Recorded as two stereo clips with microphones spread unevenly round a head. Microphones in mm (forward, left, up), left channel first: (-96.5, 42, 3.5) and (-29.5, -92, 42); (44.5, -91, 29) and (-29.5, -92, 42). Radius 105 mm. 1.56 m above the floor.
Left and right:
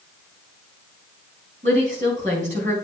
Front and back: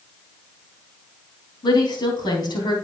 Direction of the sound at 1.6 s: 5° right.